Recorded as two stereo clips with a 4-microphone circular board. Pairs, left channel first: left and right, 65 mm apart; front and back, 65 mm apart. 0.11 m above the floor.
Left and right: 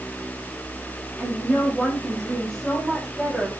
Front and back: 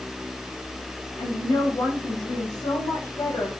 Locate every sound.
1.2 s a woman speaking: 5° left, 8.5 m